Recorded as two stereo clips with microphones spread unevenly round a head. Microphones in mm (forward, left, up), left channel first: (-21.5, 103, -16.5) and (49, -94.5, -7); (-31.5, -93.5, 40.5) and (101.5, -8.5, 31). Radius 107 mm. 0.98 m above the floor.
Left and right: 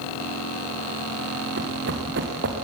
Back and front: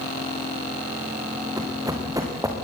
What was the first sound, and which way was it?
Running footsteps, 35° right.